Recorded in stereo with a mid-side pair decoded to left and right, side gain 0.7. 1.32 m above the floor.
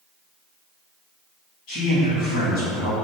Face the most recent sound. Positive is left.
turn(degrees=65)